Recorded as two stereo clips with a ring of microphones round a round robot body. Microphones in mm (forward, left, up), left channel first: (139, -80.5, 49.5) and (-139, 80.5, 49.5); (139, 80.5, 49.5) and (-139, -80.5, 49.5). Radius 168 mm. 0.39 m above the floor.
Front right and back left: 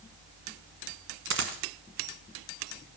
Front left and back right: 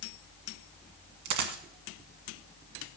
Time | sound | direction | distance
1.2 | a dropped coin | 155° right | 1.6 m